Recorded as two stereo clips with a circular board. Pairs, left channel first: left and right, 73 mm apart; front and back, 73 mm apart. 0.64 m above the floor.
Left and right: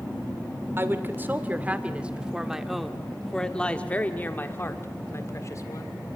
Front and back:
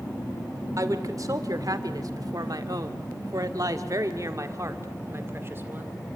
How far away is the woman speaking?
About 2 m.